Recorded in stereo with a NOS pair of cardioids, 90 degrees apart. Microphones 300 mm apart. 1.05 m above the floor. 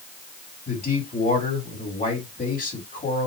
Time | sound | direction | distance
0.7 | a man speaking | 25° left | 2 m